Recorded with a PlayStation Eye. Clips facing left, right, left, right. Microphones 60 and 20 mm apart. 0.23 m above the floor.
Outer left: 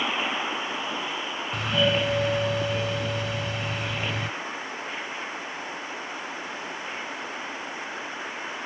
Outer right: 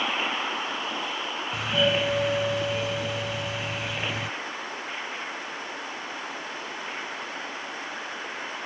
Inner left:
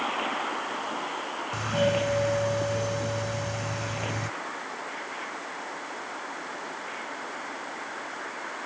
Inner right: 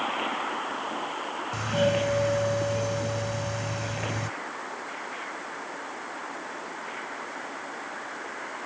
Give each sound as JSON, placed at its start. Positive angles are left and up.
{"t": 1.5, "sound": "a doorbell", "side_deg": 0}